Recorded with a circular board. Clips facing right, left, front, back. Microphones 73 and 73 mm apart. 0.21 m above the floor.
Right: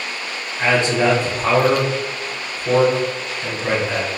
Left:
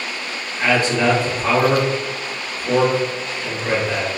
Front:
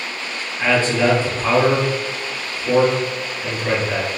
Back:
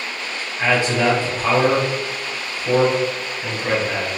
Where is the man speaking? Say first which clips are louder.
Right 1 dB, front 1 dB; 120° right, 1.4 m.